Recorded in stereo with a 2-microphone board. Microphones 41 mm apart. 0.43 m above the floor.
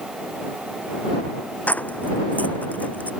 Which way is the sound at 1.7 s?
35° left (ahead or behind).